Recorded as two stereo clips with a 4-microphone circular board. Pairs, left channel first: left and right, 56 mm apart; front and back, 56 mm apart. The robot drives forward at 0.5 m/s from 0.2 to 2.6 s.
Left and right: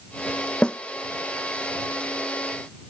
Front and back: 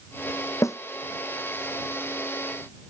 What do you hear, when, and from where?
0.6 s a snare drum: 20° left